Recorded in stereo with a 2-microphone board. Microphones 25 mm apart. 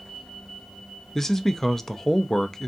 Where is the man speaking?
20° left (ahead or behind), 0.5 m.